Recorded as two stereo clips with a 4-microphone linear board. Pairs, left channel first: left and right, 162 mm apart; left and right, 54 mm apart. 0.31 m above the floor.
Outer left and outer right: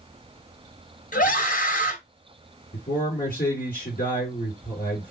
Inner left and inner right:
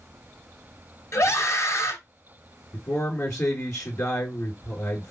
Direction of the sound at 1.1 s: 60° left (ahead or behind).